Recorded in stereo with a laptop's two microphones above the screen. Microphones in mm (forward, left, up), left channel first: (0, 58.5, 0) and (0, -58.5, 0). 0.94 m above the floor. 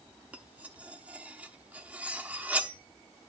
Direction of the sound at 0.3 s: 10° right (ahead or behind).